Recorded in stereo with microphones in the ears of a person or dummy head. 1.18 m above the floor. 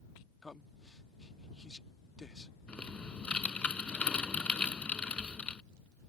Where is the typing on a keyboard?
10° left (ahead or behind).